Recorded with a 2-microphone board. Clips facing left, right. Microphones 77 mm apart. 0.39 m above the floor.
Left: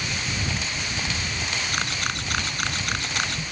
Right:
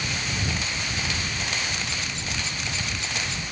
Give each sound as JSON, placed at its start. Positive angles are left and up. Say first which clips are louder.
{"t": 1.7, "sound": "a camera shutter", "louder": "left 4 dB", "side_deg": 60}